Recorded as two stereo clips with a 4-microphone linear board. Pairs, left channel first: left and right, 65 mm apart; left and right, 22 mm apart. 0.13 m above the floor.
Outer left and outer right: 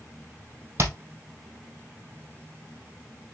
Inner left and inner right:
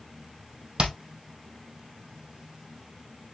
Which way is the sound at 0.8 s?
45° right (ahead or behind).